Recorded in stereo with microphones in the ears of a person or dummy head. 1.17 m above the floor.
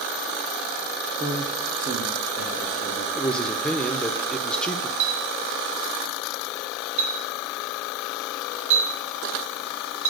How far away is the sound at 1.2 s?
About 0.7 m.